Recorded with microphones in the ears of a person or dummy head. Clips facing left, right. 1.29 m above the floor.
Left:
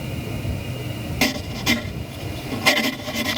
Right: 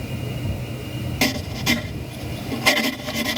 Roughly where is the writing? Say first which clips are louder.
Even; centre.